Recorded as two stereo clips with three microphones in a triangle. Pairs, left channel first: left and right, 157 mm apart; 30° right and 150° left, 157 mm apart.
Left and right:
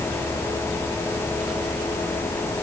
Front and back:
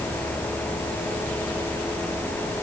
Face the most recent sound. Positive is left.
No sound to turn to.